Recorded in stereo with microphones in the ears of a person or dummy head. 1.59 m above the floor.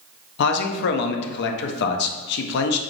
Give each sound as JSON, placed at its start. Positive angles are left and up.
{"t": 0.4, "sound": "a man speaking", "side_deg": 60, "distance_m": 0.5}